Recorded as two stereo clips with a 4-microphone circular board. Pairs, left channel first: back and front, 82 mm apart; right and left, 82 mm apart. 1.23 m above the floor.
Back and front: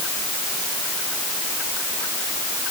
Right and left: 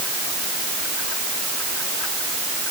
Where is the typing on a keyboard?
I don't hear typing on a keyboard.